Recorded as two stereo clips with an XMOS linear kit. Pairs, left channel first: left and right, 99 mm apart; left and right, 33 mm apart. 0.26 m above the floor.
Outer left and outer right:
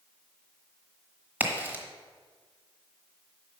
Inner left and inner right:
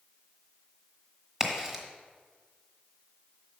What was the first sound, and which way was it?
A crack, 15° right (ahead or behind).